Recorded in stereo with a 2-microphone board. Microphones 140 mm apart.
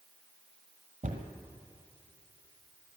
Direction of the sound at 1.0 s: 65° right (ahead or behind).